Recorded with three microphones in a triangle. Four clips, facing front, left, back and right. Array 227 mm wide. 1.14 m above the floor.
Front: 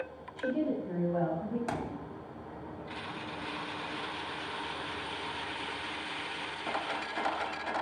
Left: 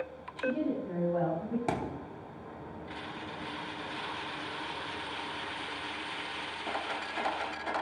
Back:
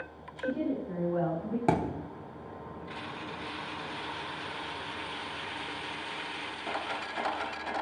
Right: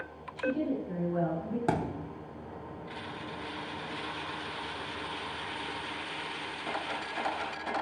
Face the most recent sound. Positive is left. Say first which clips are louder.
# right 3 dB, back 7 dB
turn(degrees=-165)